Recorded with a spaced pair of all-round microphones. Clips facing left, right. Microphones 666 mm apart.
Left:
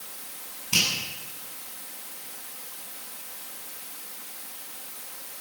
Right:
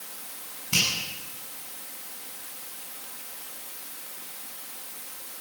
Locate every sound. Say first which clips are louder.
0.7 s a finger snap: even; 20° right (ahead or behind), 9.5 m